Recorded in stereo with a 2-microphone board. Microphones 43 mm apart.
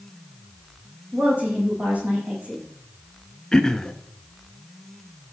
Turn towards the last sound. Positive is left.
turn(degrees=15)  # may be behind; listen again after turning